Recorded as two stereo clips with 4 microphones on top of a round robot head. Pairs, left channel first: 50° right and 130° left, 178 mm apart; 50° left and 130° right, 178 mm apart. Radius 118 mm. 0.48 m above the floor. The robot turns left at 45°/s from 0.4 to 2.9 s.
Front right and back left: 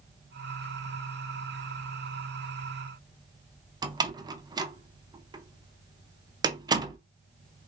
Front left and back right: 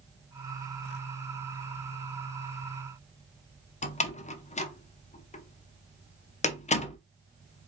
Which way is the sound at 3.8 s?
75° left.